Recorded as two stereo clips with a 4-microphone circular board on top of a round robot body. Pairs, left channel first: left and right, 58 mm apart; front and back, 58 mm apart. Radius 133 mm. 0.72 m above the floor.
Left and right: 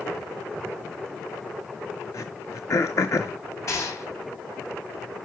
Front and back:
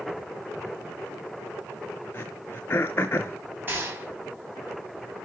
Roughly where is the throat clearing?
Ahead left.